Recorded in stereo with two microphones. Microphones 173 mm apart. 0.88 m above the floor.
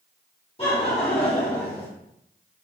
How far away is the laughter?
About 1.9 m.